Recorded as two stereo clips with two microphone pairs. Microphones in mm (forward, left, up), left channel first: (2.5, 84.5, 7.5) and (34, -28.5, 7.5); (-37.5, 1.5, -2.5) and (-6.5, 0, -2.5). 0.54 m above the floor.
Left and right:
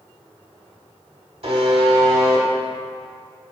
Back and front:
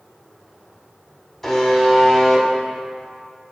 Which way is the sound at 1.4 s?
105° right.